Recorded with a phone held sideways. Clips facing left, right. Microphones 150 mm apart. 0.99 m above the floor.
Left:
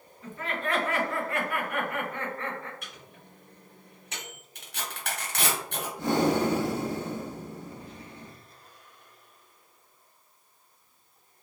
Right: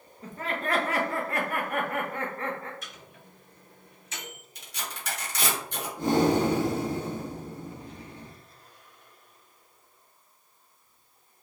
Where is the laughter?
40° right (ahead or behind), 1.0 m.